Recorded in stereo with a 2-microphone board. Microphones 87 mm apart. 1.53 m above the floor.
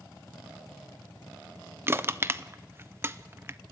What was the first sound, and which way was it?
Crushing, 30° right (ahead or behind).